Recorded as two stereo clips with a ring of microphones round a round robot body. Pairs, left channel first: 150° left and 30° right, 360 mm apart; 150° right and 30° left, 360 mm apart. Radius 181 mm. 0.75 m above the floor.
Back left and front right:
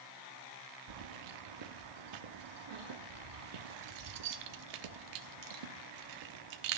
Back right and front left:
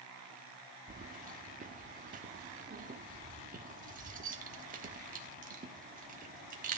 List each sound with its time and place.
0.9 s keys jangling: 40° right, 1.1 m